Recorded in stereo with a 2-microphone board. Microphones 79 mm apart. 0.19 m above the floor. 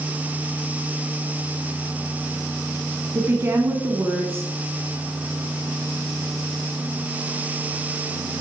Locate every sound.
3.1 s a woman speaking: 30° right (ahead or behind), 1.3 m